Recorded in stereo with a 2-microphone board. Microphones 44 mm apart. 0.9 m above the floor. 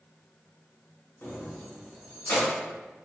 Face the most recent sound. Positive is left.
turn(degrees=65)  # may be behind; listen again after turning